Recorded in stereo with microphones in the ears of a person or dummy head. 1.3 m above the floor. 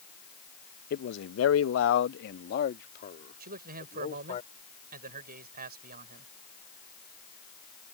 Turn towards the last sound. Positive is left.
turn(degrees=-60)  # may be behind; listen again after turning